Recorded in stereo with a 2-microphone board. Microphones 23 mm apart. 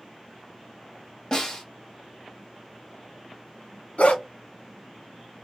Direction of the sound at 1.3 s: 30° left (ahead or behind).